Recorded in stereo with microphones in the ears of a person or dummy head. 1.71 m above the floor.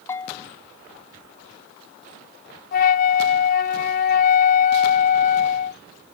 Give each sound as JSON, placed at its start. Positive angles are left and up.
{"t": 0.1, "sound": "a bell", "side_deg": 25}
{"t": 2.7, "sound": "a flute", "side_deg": 60}